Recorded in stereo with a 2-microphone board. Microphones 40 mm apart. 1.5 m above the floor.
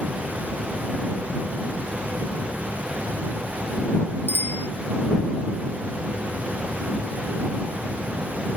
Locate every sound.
4.3 s a bicycle bell: 65° left (ahead or behind)